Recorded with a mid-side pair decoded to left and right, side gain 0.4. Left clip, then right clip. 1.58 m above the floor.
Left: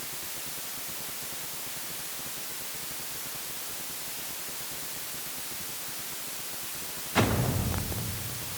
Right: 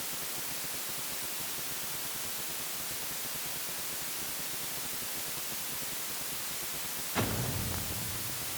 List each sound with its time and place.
Only background noise.